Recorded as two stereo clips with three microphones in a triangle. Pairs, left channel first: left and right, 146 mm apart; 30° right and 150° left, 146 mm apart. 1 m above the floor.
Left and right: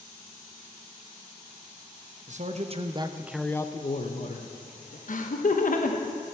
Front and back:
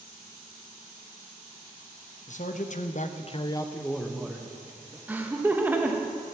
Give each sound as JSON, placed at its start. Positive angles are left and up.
{"t": 2.3, "sound": "a man speaking", "azimuth_deg": -60, "distance_m": 1.0}
{"t": 5.1, "sound": "laughter", "azimuth_deg": 75, "distance_m": 0.7}